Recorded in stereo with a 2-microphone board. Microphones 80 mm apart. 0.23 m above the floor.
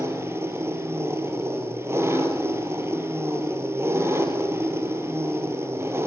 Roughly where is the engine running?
Right.